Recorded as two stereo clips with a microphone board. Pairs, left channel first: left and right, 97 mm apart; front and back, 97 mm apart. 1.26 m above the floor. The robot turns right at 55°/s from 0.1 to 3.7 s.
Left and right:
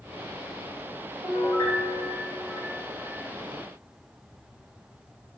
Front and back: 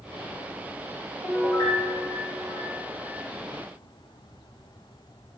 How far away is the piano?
About 1.6 m.